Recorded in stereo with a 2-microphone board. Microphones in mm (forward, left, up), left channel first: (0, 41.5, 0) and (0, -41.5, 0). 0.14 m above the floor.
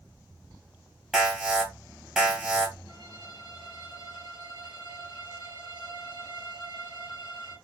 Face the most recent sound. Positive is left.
turn(degrees=-60)  # may be behind; listen again after turning